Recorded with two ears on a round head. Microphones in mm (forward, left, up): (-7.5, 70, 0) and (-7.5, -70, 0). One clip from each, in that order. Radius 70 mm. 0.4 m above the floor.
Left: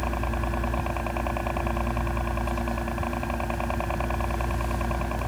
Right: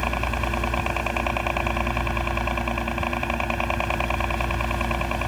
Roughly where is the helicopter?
Right.